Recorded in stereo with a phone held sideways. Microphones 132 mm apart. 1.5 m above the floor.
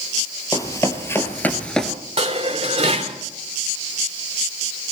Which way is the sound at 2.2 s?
50° right (ahead or behind).